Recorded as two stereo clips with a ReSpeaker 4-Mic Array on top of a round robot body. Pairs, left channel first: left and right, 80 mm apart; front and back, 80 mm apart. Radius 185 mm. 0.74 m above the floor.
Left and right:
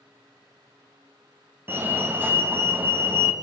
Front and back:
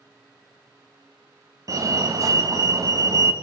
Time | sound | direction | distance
1.7 | a fire alarm | 150° right | 2 m